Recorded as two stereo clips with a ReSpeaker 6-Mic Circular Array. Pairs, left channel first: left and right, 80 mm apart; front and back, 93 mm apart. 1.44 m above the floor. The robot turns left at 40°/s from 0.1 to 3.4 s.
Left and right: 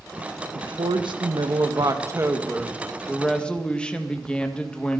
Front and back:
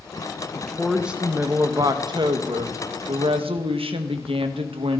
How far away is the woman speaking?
About 1.6 m.